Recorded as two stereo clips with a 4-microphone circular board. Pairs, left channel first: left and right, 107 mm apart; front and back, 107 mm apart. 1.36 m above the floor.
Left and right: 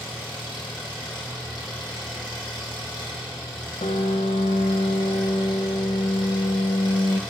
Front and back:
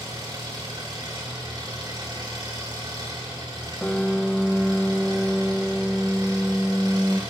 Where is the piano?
85° left, 0.6 m.